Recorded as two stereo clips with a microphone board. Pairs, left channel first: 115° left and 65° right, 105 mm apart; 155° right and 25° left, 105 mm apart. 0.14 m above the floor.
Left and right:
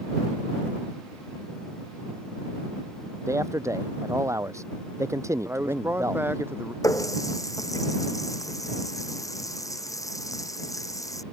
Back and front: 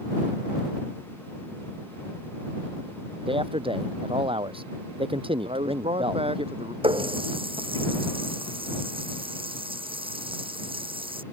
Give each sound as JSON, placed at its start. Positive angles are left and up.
{"t": 3.3, "sound": "a man speaking", "azimuth_deg": -5}
{"t": 5.5, "sound": "a man speaking", "azimuth_deg": 0}
{"t": 6.8, "sound": "a running tap", "azimuth_deg": 55}